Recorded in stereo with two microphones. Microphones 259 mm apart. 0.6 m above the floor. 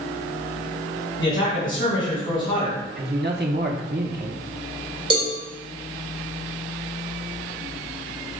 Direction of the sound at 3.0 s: 40° right (ahead or behind).